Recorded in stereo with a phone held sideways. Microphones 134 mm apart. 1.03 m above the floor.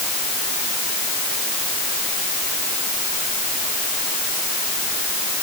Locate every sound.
Only background noise.